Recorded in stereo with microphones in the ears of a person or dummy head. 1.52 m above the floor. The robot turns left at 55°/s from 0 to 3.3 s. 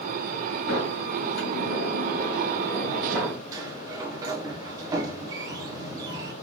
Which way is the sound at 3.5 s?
20° right (ahead or behind).